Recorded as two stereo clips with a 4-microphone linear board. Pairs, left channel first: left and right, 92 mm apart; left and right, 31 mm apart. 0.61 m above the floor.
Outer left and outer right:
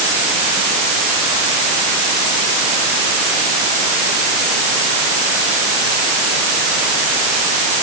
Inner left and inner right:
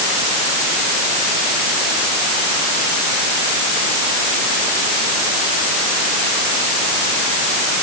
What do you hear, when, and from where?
Only background noise.